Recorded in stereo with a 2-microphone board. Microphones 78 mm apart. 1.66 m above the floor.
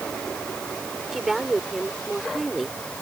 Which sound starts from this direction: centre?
A woman speaking, at 1.1 s.